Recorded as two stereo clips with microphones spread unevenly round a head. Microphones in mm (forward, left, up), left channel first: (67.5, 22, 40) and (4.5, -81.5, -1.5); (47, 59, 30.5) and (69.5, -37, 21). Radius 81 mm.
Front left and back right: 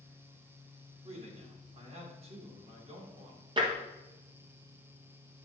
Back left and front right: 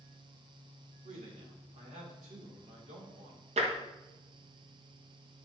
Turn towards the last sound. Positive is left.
turn(degrees=-65)